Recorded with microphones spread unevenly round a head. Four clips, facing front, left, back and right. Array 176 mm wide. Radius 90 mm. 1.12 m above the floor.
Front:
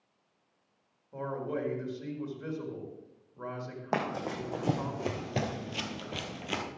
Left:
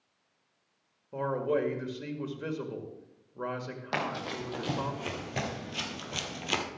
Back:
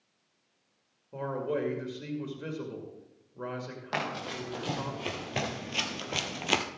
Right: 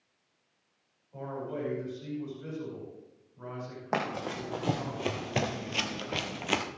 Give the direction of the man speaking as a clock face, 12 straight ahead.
8 o'clock.